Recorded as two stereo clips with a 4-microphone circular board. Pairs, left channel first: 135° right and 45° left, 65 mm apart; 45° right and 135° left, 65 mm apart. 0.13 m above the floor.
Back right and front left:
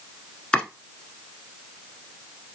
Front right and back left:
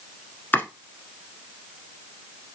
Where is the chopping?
75° right, 0.9 m.